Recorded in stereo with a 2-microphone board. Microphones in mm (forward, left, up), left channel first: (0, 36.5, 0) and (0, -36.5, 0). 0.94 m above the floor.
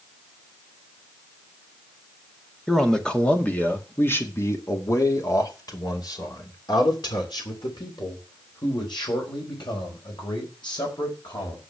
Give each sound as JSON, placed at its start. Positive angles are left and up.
{"t": 2.7, "sound": "a man speaking", "side_deg": 5, "distance_m": 2.0}